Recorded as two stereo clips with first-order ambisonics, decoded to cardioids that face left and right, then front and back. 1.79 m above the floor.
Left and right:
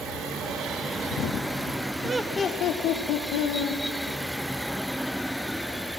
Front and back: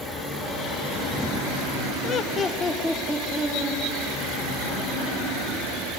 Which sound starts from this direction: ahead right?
Laughter, at 2.0 s.